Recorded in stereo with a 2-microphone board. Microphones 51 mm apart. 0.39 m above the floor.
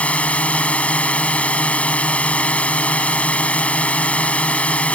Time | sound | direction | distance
0.0 | a drone | 25° left (ahead or behind) | ?